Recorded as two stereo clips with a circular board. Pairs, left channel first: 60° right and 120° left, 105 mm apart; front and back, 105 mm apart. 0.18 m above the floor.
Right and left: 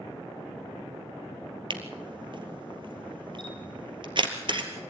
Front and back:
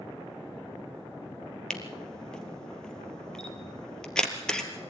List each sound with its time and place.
1.7 s a camera shutter: 85° left, 2.5 m